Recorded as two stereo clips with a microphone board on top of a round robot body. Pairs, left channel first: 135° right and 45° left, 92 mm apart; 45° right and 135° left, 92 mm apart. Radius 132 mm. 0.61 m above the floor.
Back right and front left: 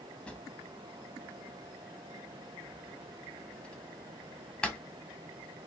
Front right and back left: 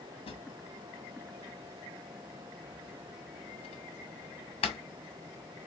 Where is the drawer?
55° right, 0.6 m.